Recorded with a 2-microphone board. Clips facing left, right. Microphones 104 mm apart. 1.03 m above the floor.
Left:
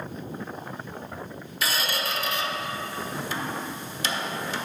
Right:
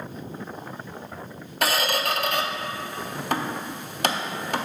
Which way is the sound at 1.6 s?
60° right (ahead or behind).